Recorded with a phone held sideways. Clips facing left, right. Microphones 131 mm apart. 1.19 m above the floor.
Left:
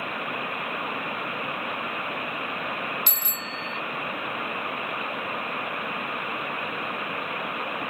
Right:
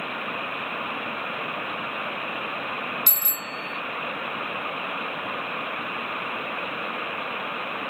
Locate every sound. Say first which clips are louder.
3.1 s a bicycle bell: even; 40° right (ahead or behind)